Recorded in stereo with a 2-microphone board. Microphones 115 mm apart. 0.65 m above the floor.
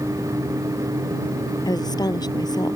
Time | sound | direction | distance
1.6 | a woman speaking | 35° left (ahead or behind) | ?